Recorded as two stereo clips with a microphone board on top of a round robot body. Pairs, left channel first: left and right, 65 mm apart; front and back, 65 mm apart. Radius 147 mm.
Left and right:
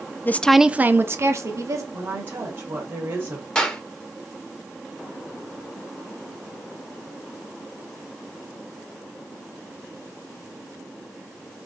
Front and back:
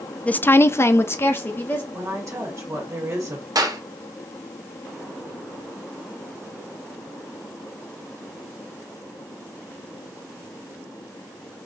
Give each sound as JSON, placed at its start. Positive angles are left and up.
{"t": 0.2, "sound": "a woman speaking", "azimuth_deg": 55, "distance_m": 0.6}
{"t": 1.9, "sound": "a woman speaking", "azimuth_deg": -135, "distance_m": 1.6}
{"t": 3.5, "sound": "a clap", "azimuth_deg": 165, "distance_m": 1.2}